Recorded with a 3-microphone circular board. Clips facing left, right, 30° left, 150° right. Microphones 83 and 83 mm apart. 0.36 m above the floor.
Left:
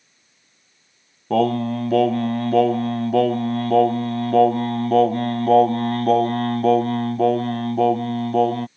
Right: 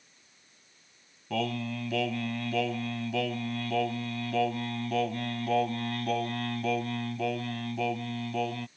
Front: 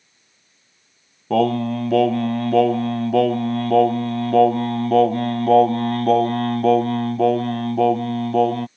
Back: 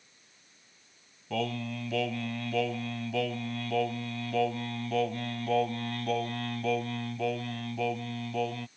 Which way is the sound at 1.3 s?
55° left.